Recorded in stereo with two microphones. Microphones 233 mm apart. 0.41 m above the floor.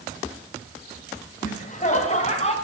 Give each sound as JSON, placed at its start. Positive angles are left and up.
{"t": 1.4, "sound": "laughter", "side_deg": 35, "distance_m": 3.0}